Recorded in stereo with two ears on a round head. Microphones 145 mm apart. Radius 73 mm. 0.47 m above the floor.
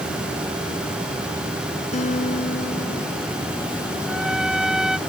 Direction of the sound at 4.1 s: 5° right (ahead or behind).